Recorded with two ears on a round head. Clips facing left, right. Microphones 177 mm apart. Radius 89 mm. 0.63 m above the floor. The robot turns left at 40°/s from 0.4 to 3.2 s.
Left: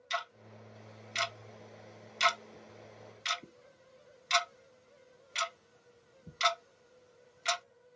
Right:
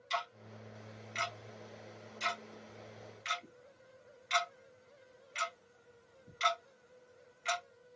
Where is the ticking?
15° left (ahead or behind), 0.6 m; by 7.6 s 50° left (ahead or behind), 0.6 m.